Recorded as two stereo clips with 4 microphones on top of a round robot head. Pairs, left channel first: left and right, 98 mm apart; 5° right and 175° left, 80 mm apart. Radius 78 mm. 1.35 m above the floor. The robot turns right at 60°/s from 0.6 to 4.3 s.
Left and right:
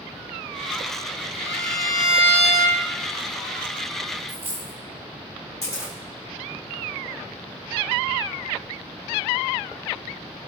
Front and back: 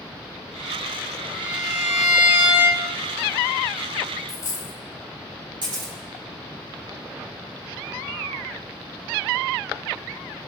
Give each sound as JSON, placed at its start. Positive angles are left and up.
{"t": 1.4, "sound": "a violin", "azimuth_deg": 145, "distance_m": 5.5}
{"t": 4.3, "sound": "a dropped coin", "azimuth_deg": -30, "distance_m": 1.1}
{"t": 5.6, "sound": "a camera shutter", "azimuth_deg": 145, "distance_m": 7.0}